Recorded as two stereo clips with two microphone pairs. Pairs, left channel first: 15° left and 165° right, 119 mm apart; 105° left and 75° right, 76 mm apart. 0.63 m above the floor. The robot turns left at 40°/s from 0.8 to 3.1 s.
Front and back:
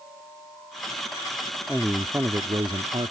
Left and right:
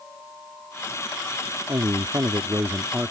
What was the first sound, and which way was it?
A man speaking, 85° right.